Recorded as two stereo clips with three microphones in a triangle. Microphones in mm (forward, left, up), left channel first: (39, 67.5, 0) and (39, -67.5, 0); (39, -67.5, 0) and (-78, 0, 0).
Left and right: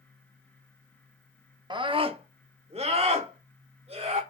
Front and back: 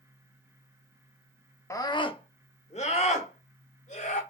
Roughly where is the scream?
Right.